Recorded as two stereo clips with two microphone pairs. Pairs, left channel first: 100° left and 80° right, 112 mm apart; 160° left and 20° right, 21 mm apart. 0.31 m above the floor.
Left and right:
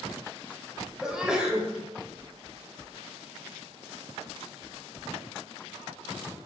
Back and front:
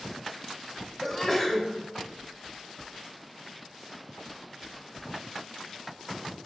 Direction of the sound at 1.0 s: 150° right.